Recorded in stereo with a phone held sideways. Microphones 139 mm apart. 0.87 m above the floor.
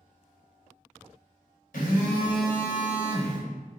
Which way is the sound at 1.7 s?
70° left (ahead or behind).